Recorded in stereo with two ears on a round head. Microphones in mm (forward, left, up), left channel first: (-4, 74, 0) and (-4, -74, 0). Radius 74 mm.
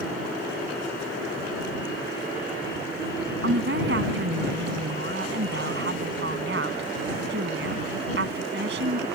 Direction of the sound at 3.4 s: 70° right (ahead or behind).